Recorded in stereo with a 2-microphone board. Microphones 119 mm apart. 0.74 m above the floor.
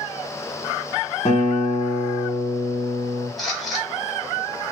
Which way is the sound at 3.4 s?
Centre (ahead or behind).